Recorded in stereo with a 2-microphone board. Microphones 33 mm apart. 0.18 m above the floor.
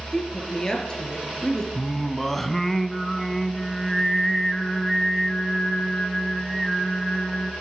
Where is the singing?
5° left (ahead or behind), 0.9 m.